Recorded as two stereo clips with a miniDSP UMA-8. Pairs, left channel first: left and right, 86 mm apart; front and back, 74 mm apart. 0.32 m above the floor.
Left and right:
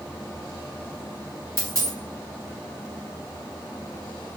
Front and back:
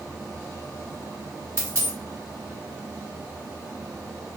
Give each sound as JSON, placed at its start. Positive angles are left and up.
{"t": 1.6, "sound": "a dropped coin", "azimuth_deg": -135, "distance_m": 1.0}